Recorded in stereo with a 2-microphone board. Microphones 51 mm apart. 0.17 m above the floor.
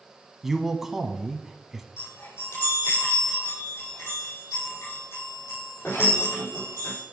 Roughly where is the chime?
Left.